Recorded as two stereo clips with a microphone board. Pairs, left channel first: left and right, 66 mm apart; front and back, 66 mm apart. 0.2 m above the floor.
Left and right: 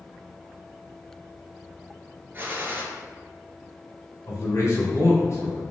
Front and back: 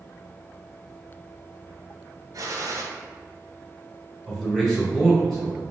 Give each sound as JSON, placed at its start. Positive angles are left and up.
{"t": 2.3, "sound": "a gunshot", "azimuth_deg": -150, "distance_m": 0.7}
{"t": 4.3, "sound": "a man speaking", "azimuth_deg": 85, "distance_m": 1.4}